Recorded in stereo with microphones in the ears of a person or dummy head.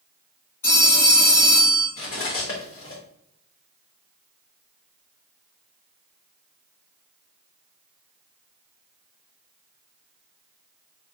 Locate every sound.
0.6 s a phone ringing: 15° left (ahead or behind), 1.7 m
2.0 s cutlery clinking: 15° left (ahead or behind), 0.9 m